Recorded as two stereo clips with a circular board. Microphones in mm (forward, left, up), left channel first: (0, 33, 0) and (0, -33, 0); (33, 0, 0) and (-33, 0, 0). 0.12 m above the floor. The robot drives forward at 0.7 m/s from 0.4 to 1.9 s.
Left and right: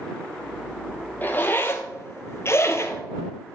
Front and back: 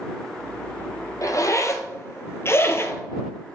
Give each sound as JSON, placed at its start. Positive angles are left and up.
{"t": 1.2, "sound": "a zipper", "azimuth_deg": 30, "distance_m": 1.2}